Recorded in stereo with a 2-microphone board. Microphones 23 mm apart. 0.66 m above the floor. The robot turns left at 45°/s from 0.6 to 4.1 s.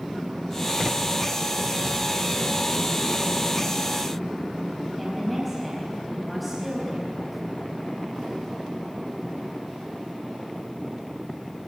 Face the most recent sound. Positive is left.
turn(degrees=5)  # may be behind; listen again after turning